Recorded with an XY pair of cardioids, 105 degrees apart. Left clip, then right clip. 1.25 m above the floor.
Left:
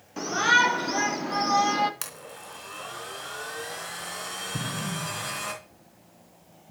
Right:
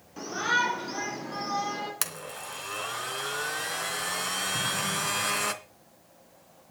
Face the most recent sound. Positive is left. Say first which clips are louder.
# right 4 dB
turn(degrees=50)